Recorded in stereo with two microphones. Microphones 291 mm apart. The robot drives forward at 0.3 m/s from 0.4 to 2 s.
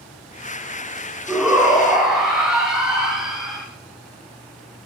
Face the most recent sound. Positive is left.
turn(degrees=0)  # may be behind; listen again after turning